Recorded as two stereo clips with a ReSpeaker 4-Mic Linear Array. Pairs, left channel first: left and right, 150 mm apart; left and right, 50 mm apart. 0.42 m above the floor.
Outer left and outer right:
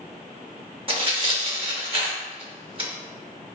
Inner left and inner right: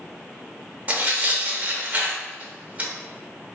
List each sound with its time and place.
0.9 s tearing paper: 35° right (ahead or behind), 0.5 m